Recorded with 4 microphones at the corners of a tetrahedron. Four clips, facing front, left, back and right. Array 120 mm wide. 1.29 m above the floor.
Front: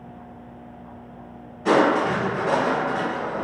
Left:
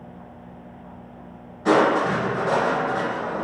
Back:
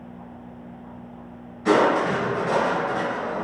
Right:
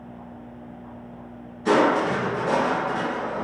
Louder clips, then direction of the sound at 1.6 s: Left 1 dB, even; 70° left.